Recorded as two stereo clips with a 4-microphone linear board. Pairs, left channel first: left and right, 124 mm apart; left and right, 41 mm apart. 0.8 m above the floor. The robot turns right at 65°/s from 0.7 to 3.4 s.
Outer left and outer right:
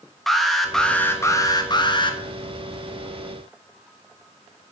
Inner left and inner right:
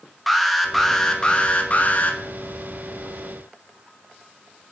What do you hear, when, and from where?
0.3 s an alarm: straight ahead, 1.0 m; by 2.2 s 100° left, 1.0 m